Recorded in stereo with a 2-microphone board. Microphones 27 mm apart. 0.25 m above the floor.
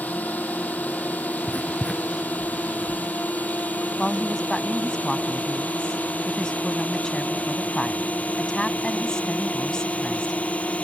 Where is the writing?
20° left (ahead or behind).